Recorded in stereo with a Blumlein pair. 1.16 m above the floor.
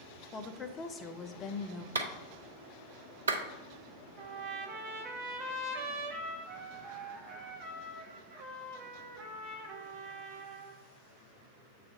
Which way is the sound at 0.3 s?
20° left.